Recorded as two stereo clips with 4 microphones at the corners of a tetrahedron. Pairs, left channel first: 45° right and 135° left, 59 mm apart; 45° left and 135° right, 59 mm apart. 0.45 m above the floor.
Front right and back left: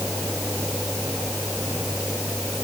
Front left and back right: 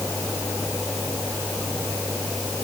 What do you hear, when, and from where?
Only background noise.